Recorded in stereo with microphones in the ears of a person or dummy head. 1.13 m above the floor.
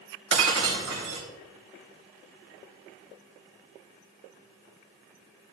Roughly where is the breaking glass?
Right.